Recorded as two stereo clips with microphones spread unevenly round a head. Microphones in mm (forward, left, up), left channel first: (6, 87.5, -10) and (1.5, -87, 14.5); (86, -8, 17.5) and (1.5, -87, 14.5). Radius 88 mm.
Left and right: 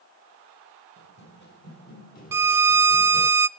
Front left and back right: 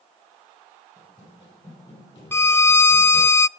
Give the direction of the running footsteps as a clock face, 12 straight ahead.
9 o'clock.